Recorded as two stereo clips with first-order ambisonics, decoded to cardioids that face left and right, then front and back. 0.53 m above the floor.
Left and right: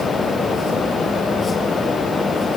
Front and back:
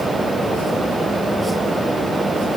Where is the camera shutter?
I don't hear a camera shutter.